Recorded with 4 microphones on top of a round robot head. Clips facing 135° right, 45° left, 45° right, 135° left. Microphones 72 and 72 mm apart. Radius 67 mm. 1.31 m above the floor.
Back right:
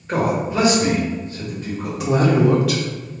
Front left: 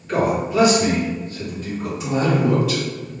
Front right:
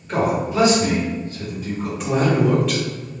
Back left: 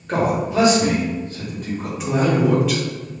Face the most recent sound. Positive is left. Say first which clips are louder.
# back right 3 dB, even
turn(degrees=-140)